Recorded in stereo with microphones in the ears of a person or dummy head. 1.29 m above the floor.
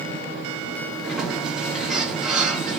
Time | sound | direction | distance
1.0 | a sliding door | 5° right (ahead or behind) | 0.9 m